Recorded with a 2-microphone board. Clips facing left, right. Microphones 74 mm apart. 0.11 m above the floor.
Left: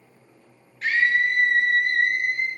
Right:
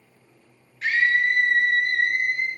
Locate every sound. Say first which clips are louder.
0.8 s a scream: even; 5° right (ahead or behind), 1.8 m; by 2.5 s 30° left (ahead or behind), 2 m